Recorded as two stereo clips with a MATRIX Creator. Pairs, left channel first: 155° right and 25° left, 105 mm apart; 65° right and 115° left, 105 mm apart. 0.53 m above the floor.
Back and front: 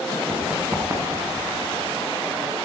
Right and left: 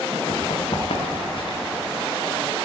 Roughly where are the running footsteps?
Ahead right.